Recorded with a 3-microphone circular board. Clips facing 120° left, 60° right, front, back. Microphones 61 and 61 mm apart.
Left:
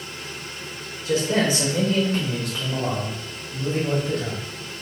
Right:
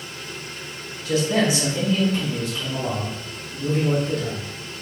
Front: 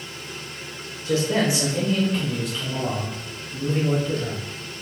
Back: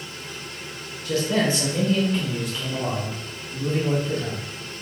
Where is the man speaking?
60° left, 1.9 m; by 4.5 s 115° left, 3.5 m.